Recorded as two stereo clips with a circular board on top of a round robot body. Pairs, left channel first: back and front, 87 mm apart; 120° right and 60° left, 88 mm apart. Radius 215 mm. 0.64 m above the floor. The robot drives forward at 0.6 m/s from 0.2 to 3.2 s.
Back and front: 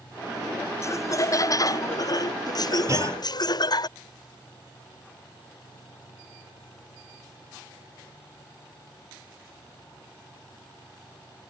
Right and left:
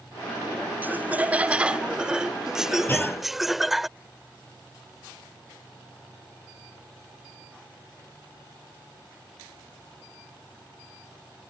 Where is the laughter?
130° left; by 3.9 s 150° left.